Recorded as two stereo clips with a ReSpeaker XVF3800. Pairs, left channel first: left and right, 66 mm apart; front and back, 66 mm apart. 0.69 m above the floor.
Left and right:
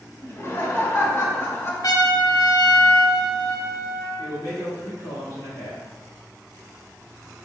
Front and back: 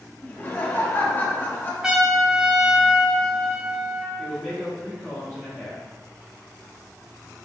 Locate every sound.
0.2 s laughter: 55° left, 0.9 m
1.8 s a trumpet: 100° left, 0.6 m
4.2 s a man speaking: 105° left, 1.2 m